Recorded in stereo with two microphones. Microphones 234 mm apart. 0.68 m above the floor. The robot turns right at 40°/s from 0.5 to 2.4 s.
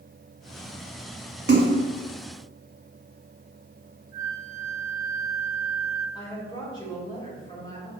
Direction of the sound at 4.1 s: 50° left (ahead or behind).